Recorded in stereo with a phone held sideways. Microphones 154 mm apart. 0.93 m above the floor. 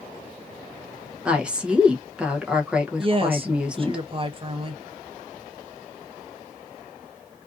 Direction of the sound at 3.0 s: 35° right (ahead or behind).